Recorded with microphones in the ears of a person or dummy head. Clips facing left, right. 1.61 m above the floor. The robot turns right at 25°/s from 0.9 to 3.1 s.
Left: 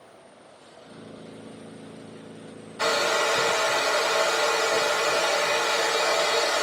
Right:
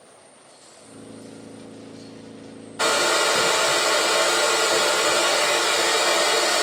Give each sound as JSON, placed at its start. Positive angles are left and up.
{"t": 2.8, "sound": "a hair dryer", "side_deg": -60, "distance_m": 0.9}